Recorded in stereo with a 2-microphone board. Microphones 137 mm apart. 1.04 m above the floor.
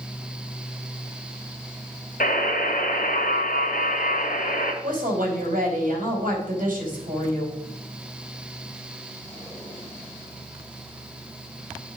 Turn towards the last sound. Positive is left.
turn(degrees=-65)  # may be behind; listen again after turning